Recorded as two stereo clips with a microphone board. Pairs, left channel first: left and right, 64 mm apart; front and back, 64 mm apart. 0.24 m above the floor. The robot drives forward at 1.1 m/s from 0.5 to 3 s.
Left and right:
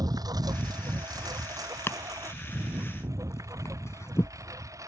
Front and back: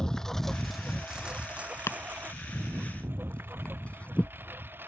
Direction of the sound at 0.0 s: 80° right.